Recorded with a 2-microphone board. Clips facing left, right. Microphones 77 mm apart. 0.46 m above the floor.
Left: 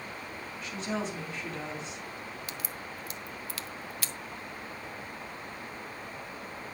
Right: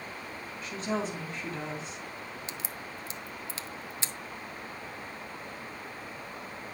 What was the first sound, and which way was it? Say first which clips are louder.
A woman speaking: right 2 dB; 40° right (ahead or behind).